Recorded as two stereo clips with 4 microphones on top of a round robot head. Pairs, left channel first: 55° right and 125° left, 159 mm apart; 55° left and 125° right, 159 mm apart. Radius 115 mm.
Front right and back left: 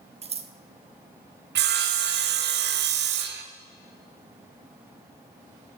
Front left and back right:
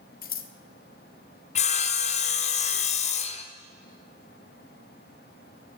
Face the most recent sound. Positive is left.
turn(degrees=105)